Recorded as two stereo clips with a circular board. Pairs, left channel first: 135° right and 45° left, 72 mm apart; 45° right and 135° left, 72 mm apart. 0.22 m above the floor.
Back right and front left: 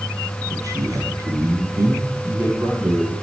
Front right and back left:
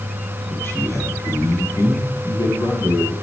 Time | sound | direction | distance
0.5 | a man speaking | 10° left | 4.5 m